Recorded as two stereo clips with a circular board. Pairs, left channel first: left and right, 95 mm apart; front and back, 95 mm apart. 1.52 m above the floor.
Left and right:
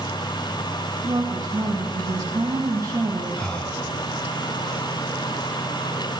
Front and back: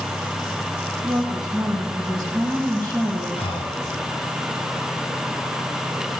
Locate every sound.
1.0 s a woman speaking: 140° right, 1.7 m
3.4 s breathing: 15° left, 1.3 m